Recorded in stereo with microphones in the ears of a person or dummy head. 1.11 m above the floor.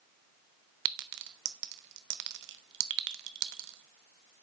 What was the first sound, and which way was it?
A clink, 60° right (ahead or behind).